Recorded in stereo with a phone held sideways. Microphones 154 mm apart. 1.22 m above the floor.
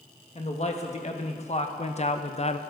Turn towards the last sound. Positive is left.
turn(degrees=45)  # may be behind; listen again after turning